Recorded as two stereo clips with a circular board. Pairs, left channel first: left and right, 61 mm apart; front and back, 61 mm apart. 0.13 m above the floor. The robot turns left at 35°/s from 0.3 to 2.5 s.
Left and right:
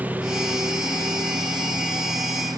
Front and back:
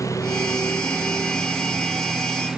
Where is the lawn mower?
25° right; by 2.6 s 105° right.